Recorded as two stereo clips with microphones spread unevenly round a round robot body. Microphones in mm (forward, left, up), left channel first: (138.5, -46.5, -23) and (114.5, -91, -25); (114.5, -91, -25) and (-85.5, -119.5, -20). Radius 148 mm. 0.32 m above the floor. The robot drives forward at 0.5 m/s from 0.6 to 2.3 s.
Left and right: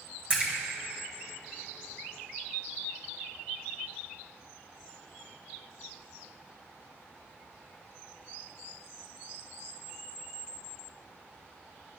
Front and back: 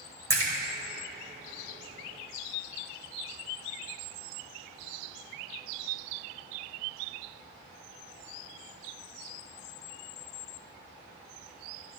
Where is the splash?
115° right, 1.4 m.